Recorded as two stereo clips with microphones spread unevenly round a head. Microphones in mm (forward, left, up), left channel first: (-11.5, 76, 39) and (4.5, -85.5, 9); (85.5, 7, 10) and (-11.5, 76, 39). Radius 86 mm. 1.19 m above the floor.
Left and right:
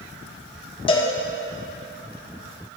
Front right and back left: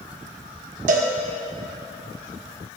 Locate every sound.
0.9 s a cowbell: 150° left, 1.3 m